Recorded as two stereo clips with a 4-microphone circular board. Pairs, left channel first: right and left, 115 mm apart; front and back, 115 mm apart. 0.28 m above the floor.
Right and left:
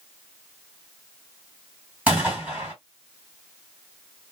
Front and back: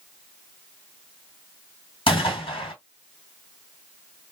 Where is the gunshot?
15° left, 2 m.